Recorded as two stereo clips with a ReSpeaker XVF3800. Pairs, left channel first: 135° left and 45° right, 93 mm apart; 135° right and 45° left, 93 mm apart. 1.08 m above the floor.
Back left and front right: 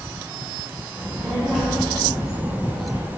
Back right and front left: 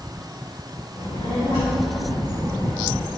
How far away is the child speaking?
About 2.5 m.